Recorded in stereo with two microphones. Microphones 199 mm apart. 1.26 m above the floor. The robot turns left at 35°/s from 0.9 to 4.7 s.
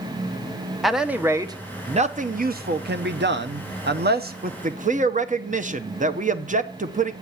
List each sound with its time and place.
0.8 s a man speaking: straight ahead, 0.8 m; by 7.1 s 135° right, 0.8 m